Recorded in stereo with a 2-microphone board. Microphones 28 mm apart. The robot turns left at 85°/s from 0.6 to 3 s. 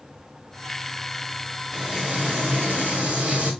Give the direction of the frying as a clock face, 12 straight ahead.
12 o'clock.